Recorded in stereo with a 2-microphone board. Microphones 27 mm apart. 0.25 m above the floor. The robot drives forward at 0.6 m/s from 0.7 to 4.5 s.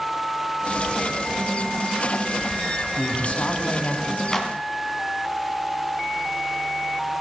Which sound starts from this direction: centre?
A clap, at 4.3 s.